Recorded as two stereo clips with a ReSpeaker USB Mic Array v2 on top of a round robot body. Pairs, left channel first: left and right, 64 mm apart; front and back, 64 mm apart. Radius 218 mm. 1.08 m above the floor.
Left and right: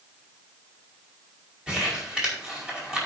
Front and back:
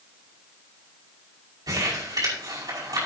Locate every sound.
1.7 s crumpling: 170° right, 5 m